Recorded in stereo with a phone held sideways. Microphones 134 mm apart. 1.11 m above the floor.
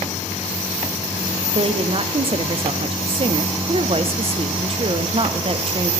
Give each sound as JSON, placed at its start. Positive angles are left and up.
{"t": 1.5, "sound": "a woman speaking", "side_deg": -45, "distance_m": 0.5}